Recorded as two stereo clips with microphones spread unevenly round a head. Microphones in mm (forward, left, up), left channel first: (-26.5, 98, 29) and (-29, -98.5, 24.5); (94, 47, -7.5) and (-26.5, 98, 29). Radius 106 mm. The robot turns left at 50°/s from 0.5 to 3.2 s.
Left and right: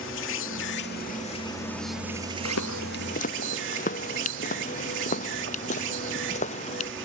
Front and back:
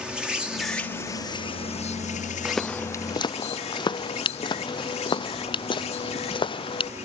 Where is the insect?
70° left; by 7.1 s 65° right.